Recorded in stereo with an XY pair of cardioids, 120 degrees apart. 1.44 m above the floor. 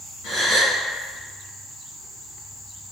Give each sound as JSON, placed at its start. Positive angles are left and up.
{"t": 0.2, "sound": "a gasp", "azimuth_deg": 60, "distance_m": 1.7}